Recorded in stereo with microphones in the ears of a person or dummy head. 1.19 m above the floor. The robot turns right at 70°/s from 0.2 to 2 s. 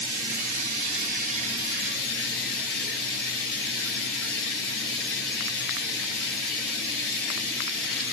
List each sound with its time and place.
0.0 s running water: 120° right, 1.5 m; by 8.1 s 5° left, 1.5 m